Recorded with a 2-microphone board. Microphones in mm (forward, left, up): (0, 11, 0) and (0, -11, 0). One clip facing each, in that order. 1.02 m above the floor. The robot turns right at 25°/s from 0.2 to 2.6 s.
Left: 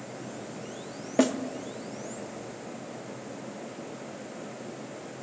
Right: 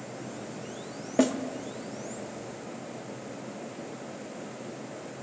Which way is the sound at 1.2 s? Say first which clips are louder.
Even; 10° left (ahead or behind).